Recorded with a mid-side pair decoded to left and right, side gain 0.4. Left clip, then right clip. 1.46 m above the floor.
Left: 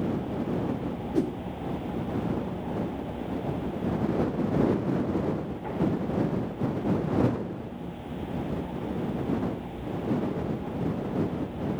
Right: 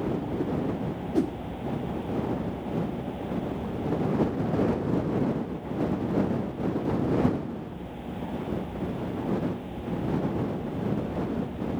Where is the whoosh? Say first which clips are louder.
Right 1 dB; 5° right.